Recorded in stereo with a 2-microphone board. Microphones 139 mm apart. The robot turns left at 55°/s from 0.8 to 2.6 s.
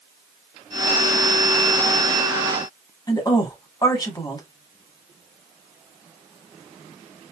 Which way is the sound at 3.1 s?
30° left (ahead or behind).